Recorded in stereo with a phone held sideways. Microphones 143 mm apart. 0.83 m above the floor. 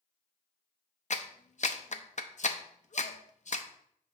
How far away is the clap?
About 0.6 m.